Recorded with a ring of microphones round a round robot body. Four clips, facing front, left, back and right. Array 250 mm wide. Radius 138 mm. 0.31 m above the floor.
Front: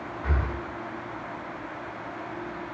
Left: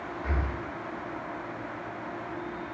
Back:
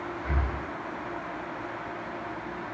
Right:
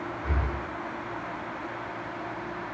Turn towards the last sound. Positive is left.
turn(degrees=10)